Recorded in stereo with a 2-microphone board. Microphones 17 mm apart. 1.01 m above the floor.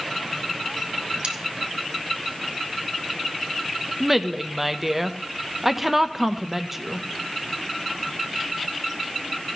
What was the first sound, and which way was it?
Cutlery clinking, 85° right.